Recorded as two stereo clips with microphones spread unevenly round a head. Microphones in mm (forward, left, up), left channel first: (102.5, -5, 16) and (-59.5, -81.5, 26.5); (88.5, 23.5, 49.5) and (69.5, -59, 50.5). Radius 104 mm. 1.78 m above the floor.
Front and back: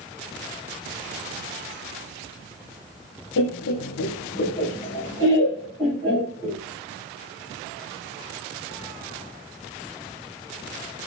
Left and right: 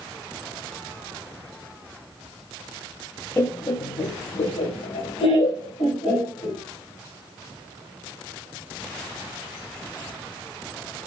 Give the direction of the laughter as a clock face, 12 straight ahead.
12 o'clock.